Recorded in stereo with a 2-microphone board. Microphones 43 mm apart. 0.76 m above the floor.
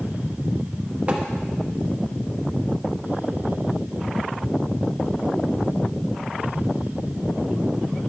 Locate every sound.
1.1 s tapping: 35° right (ahead or behind), 1.2 m